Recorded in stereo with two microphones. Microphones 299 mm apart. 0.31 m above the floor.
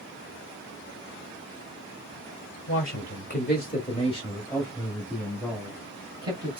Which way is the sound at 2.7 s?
45° left (ahead or behind).